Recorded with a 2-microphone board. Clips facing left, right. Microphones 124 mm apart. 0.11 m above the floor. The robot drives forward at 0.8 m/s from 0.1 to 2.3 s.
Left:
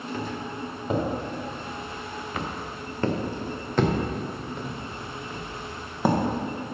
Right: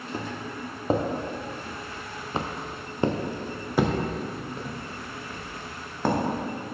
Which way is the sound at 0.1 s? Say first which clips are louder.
Even; 35° right (ahead or behind).